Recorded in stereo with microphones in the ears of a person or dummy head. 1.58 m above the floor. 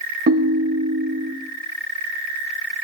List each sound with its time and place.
0.3 s a ringtone: 40° right (ahead or behind), 1.0 m